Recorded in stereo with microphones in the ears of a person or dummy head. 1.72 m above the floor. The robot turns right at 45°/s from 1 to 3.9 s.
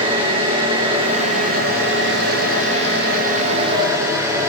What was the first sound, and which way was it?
An engine running, 150° right.